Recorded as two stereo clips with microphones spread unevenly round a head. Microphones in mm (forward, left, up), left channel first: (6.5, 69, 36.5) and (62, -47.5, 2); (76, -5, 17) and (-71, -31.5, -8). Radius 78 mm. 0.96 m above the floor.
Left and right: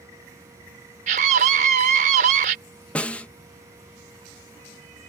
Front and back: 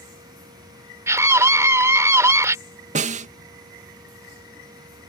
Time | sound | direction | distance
1.1 | a scream | 95° right | ?
3.0 | a snare drum | 155° right | ?